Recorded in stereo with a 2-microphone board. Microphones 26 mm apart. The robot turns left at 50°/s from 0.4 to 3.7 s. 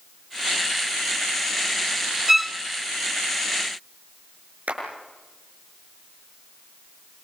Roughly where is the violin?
Centre.